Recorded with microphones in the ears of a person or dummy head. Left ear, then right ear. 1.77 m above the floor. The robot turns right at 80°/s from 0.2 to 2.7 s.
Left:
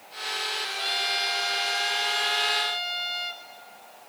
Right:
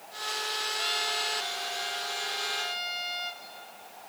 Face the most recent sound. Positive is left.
turn(degrees=155)